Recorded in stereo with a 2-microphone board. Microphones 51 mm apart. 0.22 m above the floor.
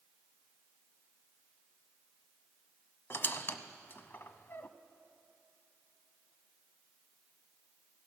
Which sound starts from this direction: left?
A squeak, at 3.1 s.